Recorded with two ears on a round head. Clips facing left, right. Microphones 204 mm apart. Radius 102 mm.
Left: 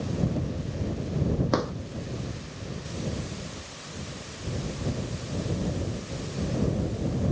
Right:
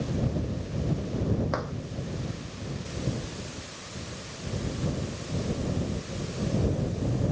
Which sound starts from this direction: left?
A drawer, at 1.5 s.